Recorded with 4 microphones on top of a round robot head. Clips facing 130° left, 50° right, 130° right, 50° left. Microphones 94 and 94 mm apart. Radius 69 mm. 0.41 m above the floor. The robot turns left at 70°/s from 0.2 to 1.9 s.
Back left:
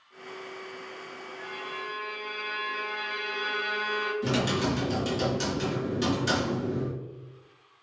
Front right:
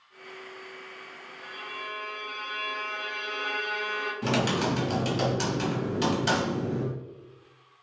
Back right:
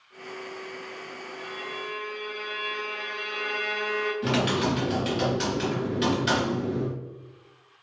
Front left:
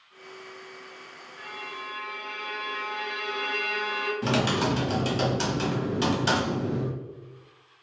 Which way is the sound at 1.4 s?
85° left.